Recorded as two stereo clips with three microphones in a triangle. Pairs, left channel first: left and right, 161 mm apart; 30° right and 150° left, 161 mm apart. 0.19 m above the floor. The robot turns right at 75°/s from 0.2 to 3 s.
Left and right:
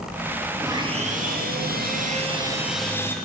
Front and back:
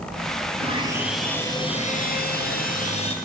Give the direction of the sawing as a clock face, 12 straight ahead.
5 o'clock.